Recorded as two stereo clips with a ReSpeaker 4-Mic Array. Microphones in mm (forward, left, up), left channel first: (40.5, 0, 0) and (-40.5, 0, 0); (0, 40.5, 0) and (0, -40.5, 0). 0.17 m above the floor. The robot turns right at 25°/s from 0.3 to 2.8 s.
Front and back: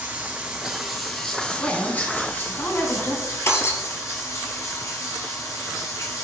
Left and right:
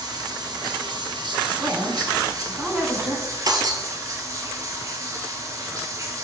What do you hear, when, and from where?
0.0 s running water: 110° right, 1.5 m; by 6.2 s 45° right, 1.5 m
1.6 s a woman speaking: 55° right, 1.3 m; by 3.4 s 25° right, 1.3 m
3.5 s breaking glass: 55° right, 1.0 m